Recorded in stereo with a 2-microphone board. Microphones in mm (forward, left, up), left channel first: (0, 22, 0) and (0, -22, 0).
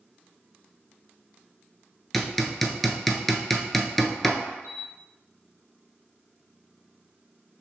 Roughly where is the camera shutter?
Right.